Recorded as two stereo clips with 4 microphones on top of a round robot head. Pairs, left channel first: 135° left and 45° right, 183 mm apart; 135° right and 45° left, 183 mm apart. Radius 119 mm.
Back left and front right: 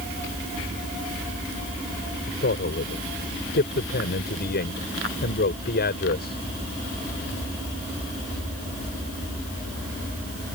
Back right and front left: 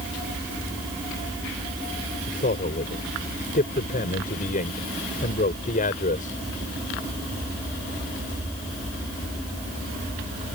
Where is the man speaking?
175° left.